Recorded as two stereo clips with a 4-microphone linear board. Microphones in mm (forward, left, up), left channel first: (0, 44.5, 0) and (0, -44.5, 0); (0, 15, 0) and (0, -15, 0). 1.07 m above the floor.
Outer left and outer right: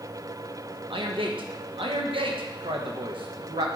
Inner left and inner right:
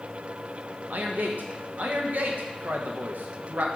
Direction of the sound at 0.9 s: 70° right (ahead or behind).